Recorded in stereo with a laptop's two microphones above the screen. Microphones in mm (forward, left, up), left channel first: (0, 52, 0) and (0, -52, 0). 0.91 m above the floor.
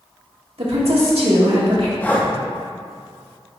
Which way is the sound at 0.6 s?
75° right (ahead or behind).